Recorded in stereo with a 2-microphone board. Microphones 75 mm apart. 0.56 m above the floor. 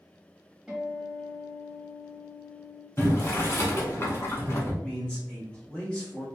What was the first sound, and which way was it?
A guitar, 5° right (ahead or behind).